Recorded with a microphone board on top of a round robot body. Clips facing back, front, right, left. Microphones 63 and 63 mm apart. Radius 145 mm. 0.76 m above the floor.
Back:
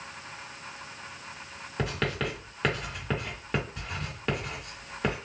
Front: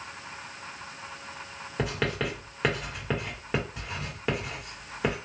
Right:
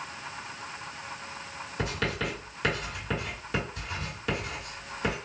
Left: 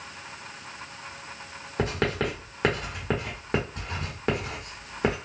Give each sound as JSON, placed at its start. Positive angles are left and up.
{"t": 1.8, "sound": "writing", "azimuth_deg": 80, "distance_m": 1.3}